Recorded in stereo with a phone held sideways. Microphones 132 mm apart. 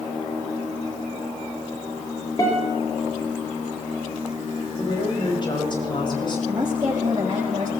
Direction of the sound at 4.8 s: 35° left (ahead or behind).